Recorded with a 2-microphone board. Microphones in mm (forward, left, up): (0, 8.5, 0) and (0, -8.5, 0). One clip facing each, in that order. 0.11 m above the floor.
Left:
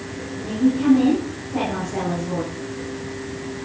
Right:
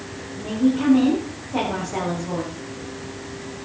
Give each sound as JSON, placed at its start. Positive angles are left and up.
{"t": 0.4, "sound": "a woman speaking", "side_deg": -40, "distance_m": 8.5}